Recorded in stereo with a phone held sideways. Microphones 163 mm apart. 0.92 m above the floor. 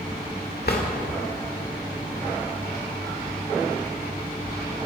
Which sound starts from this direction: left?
A drawer, at 0.7 s.